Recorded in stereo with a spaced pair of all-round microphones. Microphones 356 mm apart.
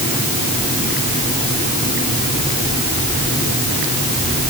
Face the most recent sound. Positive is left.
No sound to turn to.